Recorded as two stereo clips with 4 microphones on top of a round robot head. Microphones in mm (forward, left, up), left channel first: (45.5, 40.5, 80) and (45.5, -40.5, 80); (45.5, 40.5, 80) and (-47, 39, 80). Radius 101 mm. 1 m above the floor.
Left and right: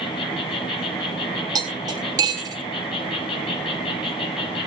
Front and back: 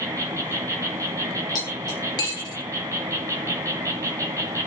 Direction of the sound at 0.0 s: 125° left.